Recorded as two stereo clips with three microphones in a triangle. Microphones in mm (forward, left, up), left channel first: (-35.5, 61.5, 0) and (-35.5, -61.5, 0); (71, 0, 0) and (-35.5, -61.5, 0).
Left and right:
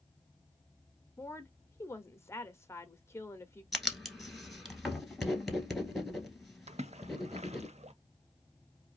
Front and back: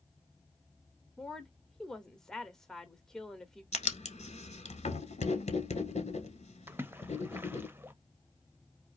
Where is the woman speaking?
110° left, 0.8 m.